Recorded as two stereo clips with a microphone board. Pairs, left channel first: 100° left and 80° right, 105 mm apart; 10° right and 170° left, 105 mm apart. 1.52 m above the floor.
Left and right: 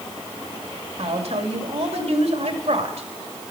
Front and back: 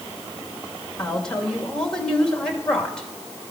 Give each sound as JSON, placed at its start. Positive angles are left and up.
{"t": 1.0, "sound": "a woman speaking", "azimuth_deg": -95, "distance_m": 2.5}